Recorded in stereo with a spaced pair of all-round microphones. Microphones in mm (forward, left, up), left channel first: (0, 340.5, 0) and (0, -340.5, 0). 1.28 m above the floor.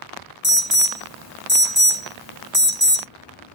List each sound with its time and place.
0.4 s an alarm: 30° right (ahead or behind), 1.3 m